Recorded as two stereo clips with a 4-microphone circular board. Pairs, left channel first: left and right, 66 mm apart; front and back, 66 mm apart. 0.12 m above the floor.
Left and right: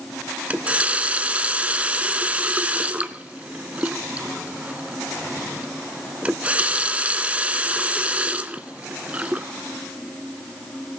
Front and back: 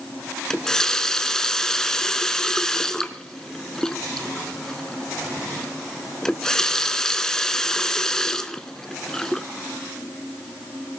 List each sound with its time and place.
0.5 s a running tap: 65° right, 0.8 m